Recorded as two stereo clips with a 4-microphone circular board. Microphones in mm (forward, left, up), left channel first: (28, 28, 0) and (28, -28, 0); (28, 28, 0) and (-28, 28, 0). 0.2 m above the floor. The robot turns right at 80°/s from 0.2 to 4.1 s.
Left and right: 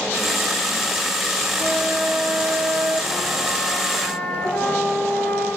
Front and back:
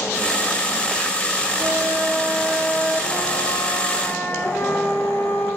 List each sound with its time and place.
1.6 s a flute: 150° right, 1.1 m; by 5.5 s 50° left, 1.1 m